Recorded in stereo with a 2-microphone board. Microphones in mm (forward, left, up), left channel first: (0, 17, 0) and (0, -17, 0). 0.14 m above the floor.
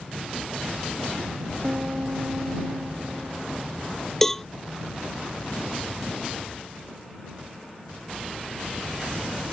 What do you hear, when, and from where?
1.6 s a piano: 40° right (ahead or behind)
4.2 s a cowbell: 10° left (ahead or behind)